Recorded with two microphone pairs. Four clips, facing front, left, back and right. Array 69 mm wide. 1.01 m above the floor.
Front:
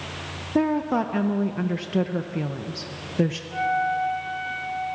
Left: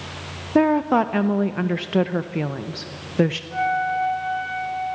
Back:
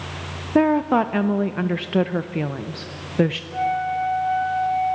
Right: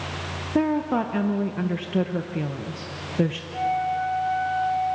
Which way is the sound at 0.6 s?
130° left.